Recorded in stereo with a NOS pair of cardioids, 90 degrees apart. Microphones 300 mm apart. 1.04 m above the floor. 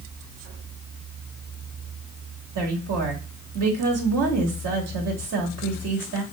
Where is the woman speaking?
55° right, 1.6 m.